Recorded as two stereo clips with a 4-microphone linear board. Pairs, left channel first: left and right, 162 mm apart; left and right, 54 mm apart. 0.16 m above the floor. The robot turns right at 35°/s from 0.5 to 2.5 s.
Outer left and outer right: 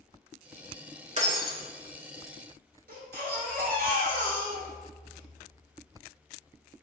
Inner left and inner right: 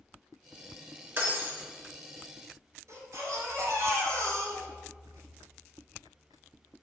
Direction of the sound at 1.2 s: 45° right (ahead or behind).